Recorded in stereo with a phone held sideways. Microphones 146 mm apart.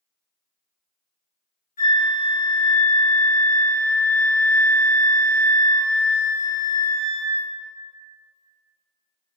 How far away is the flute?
About 1.5 m.